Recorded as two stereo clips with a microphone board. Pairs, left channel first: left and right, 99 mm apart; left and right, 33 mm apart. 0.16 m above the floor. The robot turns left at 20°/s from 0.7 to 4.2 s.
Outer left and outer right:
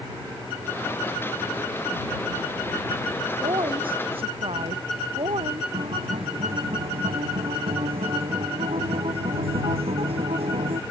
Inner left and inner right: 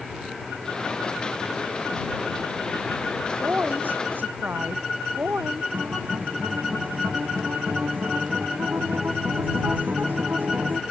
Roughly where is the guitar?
Right.